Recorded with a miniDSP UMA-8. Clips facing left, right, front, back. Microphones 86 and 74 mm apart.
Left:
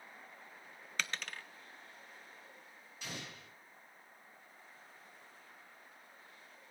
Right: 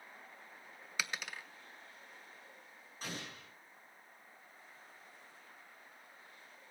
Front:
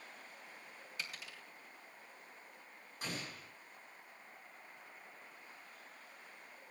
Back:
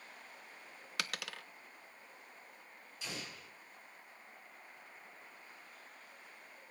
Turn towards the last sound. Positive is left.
turn(degrees=-40)